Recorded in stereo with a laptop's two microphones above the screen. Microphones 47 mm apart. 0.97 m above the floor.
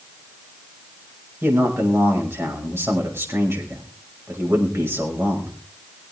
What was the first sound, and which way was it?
A man speaking, 55° right (ahead or behind).